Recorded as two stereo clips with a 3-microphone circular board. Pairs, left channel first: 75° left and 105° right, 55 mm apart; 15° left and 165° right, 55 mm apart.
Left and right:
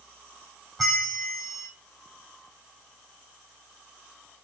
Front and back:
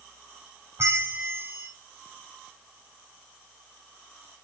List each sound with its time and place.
0.8 s a bell: 165° left, 1.7 m